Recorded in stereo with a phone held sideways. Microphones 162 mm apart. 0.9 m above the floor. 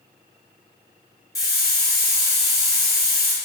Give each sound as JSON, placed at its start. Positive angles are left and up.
{"t": 1.4, "sound": "a hiss", "side_deg": 20, "distance_m": 1.4}